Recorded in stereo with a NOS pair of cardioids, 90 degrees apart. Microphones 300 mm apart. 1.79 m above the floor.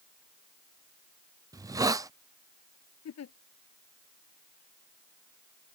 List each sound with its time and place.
1.5 s a hiss: 10° right
3.0 s a giggle: 60° left